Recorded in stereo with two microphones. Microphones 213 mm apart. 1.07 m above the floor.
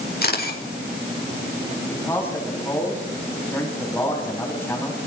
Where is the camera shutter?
45° left (ahead or behind), 5 m.